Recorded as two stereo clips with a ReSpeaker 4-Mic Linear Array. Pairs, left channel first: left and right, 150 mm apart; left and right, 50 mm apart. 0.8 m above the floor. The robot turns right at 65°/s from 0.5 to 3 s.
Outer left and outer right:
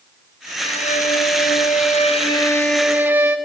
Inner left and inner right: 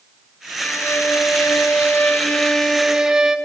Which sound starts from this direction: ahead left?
A violin, at 0.6 s.